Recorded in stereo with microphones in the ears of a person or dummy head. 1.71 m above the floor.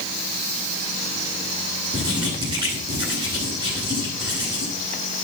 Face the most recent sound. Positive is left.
turn(degrees=-25)  # may be behind; listen again after turning